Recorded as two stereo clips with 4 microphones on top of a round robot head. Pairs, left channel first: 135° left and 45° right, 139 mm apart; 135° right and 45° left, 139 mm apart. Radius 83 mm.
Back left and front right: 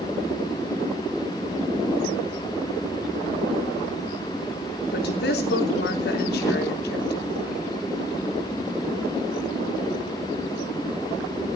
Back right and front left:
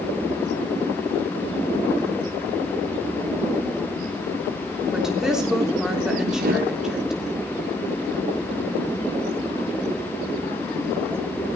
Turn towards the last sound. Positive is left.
turn(degrees=65)